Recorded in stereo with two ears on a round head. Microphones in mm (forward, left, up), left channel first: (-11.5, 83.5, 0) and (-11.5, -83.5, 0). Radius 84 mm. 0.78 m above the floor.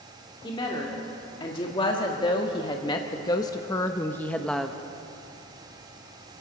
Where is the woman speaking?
25° left (ahead or behind), 2 m; by 4.8 s centre (ahead or behind), 0.8 m.